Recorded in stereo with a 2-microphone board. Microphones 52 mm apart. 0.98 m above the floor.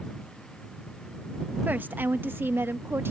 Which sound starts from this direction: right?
A woman speaking, at 1.6 s.